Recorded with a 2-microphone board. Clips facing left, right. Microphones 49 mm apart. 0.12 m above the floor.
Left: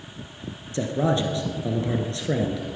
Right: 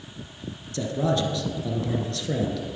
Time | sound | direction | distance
0.7 | a man speaking | 25° left (ahead or behind) | 1.5 m